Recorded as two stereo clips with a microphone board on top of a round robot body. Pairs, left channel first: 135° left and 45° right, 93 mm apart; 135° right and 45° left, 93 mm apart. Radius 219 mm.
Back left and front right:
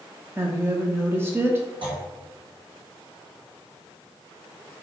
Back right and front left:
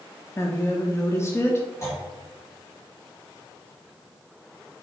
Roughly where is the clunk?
Right.